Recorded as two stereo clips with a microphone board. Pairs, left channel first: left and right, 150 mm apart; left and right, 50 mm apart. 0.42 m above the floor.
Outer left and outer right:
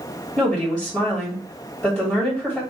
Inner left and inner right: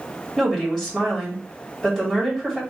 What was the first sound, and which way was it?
A woman speaking, 5° left (ahead or behind).